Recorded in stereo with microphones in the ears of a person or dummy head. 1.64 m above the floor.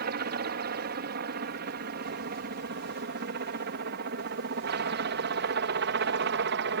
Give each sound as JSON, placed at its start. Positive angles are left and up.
{"t": 0.0, "sound": "a helicopter", "side_deg": -50}